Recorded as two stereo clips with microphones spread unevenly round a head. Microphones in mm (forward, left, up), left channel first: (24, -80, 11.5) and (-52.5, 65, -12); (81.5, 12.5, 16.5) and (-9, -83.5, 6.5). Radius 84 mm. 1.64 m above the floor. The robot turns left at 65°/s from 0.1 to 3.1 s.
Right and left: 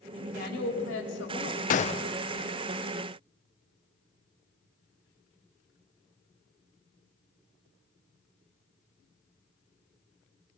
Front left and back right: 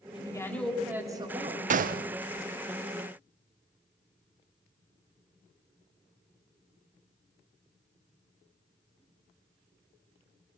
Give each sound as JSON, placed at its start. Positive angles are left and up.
{"t": 0.1, "sound": "a woman speaking", "azimuth_deg": -5, "distance_m": 4.0}
{"t": 1.7, "sound": "a gunshot", "azimuth_deg": -105, "distance_m": 0.7}